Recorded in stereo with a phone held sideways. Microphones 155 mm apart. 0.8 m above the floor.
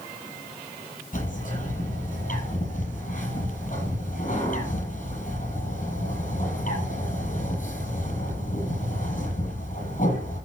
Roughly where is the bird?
Left.